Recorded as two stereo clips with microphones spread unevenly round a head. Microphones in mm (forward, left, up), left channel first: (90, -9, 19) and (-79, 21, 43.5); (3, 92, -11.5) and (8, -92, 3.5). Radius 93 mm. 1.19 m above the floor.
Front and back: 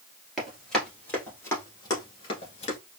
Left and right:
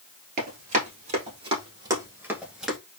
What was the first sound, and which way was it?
Running footsteps, 110° right.